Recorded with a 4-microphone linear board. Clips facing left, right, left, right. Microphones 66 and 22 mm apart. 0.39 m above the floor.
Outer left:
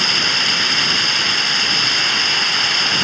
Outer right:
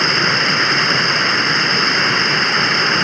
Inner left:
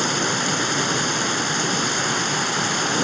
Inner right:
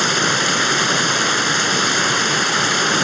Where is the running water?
30° right (ahead or behind).